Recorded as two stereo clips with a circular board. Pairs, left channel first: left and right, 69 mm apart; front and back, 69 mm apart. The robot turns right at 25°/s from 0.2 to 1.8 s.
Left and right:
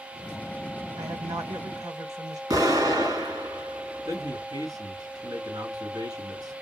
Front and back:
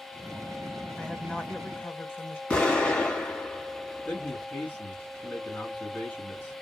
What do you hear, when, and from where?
1.0 s a woman speaking: 85° right, 1.5 m; by 2.4 s 60° right, 1.5 m
2.5 s an explosion: 75° right, 3.5 m
4.0 s a man speaking: 75° right, 3 m